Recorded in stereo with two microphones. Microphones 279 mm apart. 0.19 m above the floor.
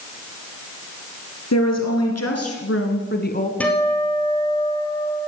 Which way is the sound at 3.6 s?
5° left (ahead or behind).